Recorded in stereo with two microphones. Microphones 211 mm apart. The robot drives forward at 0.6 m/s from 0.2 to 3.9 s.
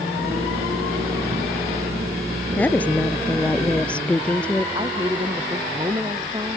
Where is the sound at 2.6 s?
5° left (ahead or behind).